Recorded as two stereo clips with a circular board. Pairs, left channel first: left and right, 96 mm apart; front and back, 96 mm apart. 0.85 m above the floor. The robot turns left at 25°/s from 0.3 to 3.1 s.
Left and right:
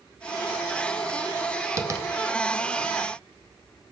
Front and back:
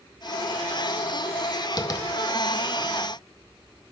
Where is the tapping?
35° right, 0.5 m; by 2.0 s 45° right, 0.5 m.